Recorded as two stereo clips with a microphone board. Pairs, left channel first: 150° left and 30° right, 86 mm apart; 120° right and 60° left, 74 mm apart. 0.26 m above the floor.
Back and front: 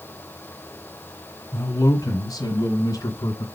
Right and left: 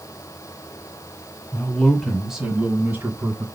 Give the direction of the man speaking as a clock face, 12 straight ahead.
6 o'clock.